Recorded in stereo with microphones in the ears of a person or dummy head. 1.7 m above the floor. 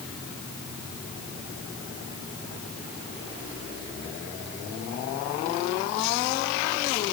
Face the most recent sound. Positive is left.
No sound to turn to.